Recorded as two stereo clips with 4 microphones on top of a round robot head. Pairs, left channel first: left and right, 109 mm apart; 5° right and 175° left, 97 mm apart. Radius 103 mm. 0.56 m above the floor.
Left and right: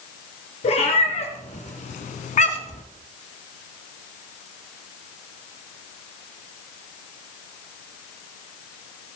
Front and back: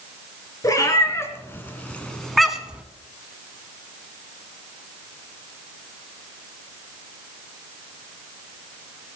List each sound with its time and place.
0.6 s a cat meowing: 50° left, 2.5 m; by 2.8 s 100° left, 1.5 m